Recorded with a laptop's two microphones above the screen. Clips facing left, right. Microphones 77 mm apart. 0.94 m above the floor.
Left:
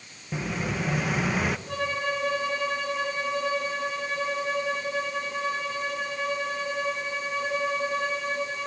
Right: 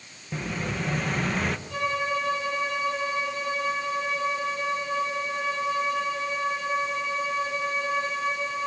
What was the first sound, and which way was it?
An explosion, 5° left (ahead or behind).